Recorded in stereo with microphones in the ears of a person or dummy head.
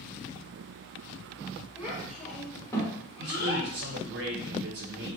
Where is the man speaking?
60° right (ahead or behind), 1.0 m.